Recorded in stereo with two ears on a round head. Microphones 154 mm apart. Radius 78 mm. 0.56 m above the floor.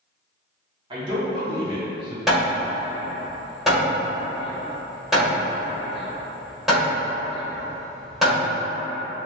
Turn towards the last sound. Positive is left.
turn(degrees=0)  # may be behind; listen again after turning